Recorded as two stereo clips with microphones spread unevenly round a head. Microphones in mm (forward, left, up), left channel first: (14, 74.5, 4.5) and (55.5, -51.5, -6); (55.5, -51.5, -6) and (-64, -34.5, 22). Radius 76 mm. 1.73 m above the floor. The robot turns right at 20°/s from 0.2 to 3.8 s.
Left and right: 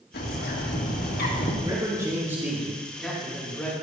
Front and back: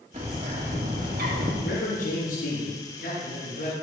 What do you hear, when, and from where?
0.1 s a bird: 120° left, 2.5 m; by 1.5 s 145° left, 2.5 m
1.6 s a man speaking: 10° right, 3.5 m; by 3.7 s 30° left, 3.5 m